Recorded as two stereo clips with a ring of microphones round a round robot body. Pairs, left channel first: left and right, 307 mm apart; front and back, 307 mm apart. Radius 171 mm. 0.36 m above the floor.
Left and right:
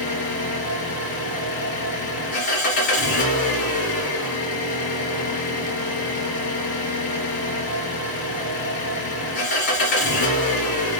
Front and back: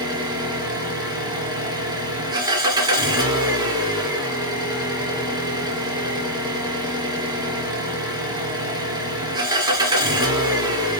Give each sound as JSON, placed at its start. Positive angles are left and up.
{"t": 0.0, "sound": "an engine running", "azimuth_deg": 105, "distance_m": 2.0}